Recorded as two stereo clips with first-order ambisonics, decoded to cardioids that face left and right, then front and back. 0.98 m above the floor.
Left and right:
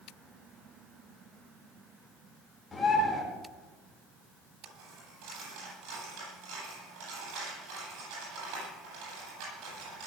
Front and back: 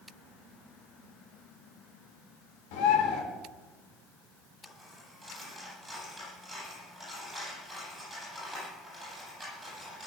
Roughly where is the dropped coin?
Right.